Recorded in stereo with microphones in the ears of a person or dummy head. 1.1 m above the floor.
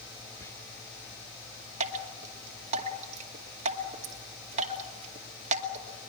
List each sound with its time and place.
0.4 s whispering: 15° left (ahead or behind), 0.7 m
1.8 s dripping: 35° right (ahead or behind), 2 m